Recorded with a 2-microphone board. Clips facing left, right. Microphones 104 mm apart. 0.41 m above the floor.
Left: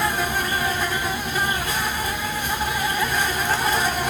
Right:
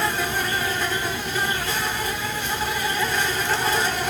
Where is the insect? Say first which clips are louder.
Left 1 dB; 15° left (ahead or behind), 1.0 m.